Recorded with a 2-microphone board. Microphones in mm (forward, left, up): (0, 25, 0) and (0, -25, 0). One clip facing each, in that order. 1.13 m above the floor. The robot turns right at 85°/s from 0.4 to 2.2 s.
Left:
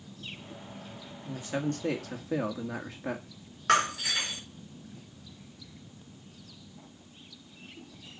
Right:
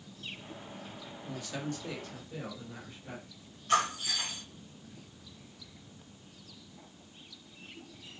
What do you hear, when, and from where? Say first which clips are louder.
1.2 s a man speaking: left 6 dB; 10° left, 1.8 m; by 3.3 s 90° left, 1.8 m
3.7 s breaking glass: left 3 dB; 75° left (ahead or behind), 6 m